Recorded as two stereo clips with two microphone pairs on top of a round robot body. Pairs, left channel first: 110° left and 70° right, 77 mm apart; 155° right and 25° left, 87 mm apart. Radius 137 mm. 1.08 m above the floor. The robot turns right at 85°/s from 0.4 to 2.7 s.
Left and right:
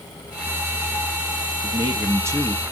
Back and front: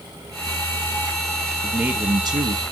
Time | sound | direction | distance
1.6 | a man speaking | 65° right | 1.8 m